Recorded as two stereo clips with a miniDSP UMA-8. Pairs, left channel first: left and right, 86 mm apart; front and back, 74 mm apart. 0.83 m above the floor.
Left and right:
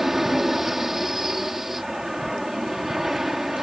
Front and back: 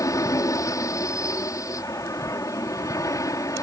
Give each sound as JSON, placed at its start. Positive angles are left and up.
{"t": 0.0, "sound": "an aircraft", "azimuth_deg": -5}